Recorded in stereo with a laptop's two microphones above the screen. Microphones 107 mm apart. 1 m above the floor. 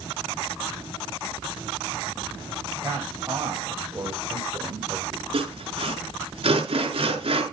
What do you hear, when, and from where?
2.8 s a man speaking: 20° right (ahead or behind), 6 m; by 5.2 s 25° right (ahead or behind), 3.5 m
5.3 s sawing: 60° right (ahead or behind), 5.5 m